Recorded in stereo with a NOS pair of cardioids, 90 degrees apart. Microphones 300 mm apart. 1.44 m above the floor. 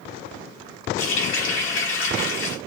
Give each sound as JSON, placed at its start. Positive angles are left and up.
{"t": 1.0, "sound": "a running tap", "azimuth_deg": 45, "distance_m": 1.5}